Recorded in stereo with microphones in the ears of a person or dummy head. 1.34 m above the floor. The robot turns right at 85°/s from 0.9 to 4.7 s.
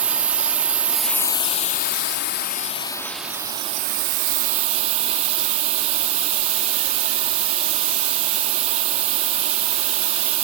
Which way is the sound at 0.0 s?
15° right.